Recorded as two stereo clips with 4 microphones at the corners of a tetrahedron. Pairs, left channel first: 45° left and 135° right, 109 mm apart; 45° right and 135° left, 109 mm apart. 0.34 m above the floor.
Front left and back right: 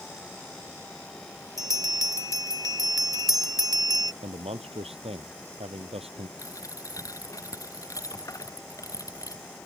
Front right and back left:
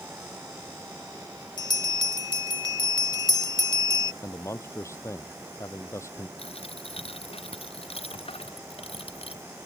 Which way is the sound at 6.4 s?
15° right.